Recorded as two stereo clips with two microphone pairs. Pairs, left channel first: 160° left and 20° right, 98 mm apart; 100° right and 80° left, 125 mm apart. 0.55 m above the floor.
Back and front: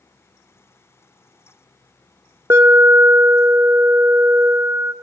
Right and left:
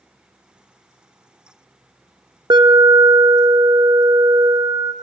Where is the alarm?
35° left, 0.7 m.